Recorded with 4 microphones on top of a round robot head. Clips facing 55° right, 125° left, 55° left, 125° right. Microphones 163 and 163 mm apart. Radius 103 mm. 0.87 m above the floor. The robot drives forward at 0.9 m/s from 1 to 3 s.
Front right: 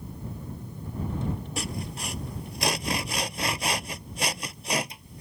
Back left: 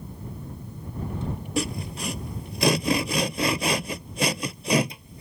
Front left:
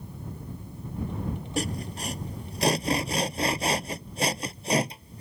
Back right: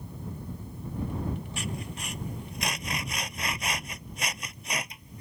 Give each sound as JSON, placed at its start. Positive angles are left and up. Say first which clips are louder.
{"t": 1.6, "sound": "sawing", "louder": "back left 6 dB, front left 6 dB", "azimuth_deg": 110}